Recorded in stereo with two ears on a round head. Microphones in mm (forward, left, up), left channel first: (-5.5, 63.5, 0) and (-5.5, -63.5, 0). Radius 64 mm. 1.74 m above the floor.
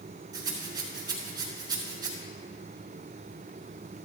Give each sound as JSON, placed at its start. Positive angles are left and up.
{"t": 0.3, "sound": "a rattle", "side_deg": -30, "distance_m": 4.5}